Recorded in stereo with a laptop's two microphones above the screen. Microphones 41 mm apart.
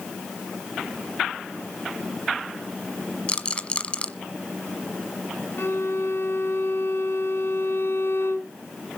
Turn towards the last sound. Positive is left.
turn(degrees=75)  # may be behind; listen again after turning